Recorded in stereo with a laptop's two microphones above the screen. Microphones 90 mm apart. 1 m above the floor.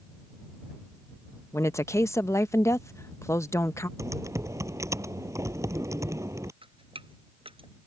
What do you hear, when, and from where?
1.5 s a woman speaking: 30° left (ahead or behind)
4.0 s typing on a keyboard: 35° right (ahead or behind)
6.6 s dripping: 80° right